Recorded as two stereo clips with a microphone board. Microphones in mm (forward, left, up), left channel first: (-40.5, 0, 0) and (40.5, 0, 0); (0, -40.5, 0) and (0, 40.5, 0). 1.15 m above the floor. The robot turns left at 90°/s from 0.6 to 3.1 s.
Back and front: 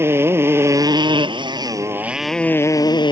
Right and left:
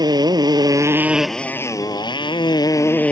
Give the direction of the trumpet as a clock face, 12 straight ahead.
I don't hear a trumpet.